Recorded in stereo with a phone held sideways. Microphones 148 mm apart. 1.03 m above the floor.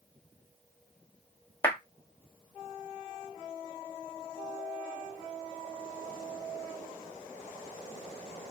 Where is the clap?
15° left (ahead or behind), 1.0 m.